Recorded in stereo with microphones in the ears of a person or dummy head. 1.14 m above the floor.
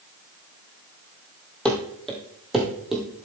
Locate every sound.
1.6 s running footsteps: 5° left (ahead or behind), 1.8 m; by 3.3 s 5° right (ahead or behind), 2.5 m